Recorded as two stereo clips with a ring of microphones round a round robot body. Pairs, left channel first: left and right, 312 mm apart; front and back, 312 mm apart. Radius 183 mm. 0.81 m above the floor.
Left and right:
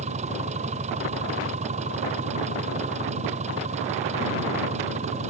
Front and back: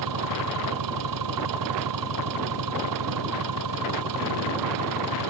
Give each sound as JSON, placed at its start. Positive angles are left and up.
{"t": 0.0, "sound": "an engine running", "azimuth_deg": -160}